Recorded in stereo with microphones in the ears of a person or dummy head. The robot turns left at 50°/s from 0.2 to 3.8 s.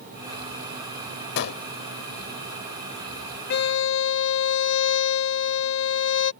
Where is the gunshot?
65° left (ahead or behind).